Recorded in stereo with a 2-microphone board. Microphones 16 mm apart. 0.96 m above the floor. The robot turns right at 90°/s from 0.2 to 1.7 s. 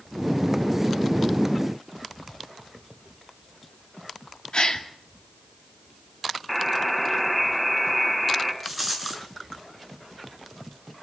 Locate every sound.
4.5 s a gasp: 65° left (ahead or behind), 2.5 m
6.5 s a buzzer: 5° left (ahead or behind), 3.5 m
8.6 s a rattle: centre (ahead or behind), 5.5 m